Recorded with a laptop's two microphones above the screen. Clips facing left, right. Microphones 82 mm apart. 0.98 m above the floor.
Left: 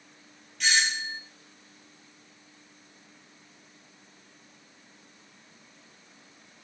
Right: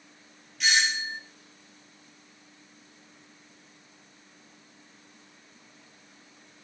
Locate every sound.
0.6 s a doorbell: 5° right (ahead or behind), 0.7 m